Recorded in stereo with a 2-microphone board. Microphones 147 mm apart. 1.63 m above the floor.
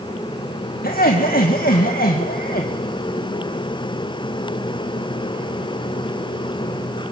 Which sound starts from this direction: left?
Laughter, at 0.8 s.